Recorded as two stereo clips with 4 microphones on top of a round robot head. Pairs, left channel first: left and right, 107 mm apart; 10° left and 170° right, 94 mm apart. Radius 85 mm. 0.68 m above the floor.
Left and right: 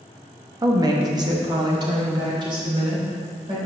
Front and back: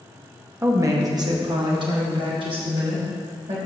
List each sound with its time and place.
0.6 s a woman speaking: 120° right, 1.1 m; by 3.6 s 140° right, 3.5 m